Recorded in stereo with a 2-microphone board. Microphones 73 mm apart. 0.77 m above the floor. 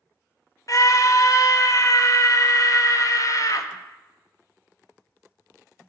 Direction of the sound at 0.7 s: 45° left (ahead or behind).